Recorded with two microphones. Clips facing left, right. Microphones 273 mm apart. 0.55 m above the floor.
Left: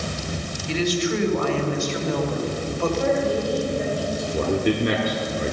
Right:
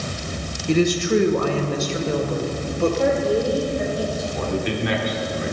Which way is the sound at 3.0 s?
50° right (ahead or behind).